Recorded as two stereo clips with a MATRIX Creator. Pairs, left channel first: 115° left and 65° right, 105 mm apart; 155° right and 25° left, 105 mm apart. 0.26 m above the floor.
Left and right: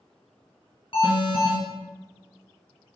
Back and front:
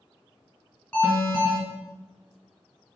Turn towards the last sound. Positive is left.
turn(degrees=120)